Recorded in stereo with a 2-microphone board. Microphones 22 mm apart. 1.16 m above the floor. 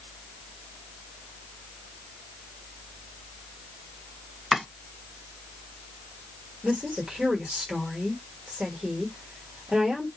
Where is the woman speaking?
65° right (ahead or behind), 1.4 m.